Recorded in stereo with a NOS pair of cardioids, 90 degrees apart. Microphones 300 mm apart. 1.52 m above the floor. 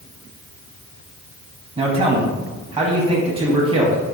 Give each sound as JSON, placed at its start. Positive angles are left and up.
{"t": 1.8, "sound": "a man speaking", "azimuth_deg": -20, "distance_m": 0.9}